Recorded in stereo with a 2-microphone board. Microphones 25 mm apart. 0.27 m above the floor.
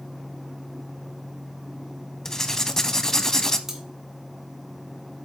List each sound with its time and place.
2.2 s writing: 20° left (ahead or behind), 0.7 m
3.7 s cutlery clinking: 20° right (ahead or behind), 1.8 m